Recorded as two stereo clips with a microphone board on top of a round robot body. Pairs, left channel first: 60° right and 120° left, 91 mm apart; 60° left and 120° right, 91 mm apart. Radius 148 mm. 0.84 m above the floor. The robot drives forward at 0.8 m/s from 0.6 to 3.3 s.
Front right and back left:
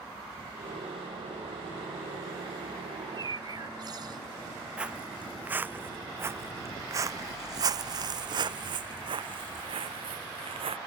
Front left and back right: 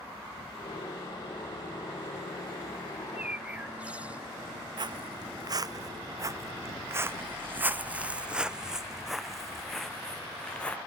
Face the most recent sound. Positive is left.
turn(degrees=140)